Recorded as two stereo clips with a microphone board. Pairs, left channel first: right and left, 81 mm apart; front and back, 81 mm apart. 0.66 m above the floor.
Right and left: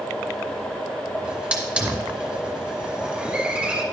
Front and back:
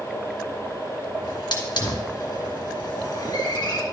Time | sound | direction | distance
1.2 | a hiss | 20° left | 2.5 m